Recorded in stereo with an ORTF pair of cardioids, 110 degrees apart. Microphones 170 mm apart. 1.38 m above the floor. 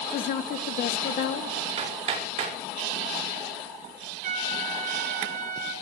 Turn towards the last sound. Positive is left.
turn(degrees=-55)